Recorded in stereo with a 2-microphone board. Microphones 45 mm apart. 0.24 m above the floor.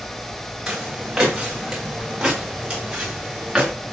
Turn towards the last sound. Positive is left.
turn(degrees=-15)  # may be behind; listen again after turning